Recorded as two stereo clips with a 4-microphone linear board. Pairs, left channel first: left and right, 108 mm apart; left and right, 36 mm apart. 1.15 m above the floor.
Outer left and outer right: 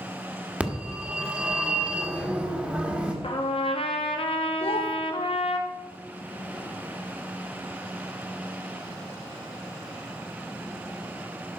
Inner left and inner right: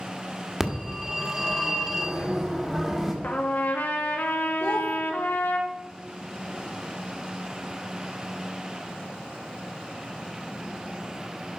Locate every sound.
0.6 s a phone ringing: 15° right (ahead or behind), 1.4 m
3.2 s a trumpet: 65° left (ahead or behind), 1.1 m
4.6 s a child speaking: 85° left, 0.9 m